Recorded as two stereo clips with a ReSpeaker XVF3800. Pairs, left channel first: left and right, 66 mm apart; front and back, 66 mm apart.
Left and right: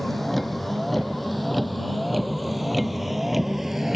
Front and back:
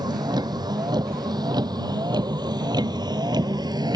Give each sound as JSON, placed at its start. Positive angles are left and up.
{"t": 0.0, "sound": "a vehicle", "azimuth_deg": 175}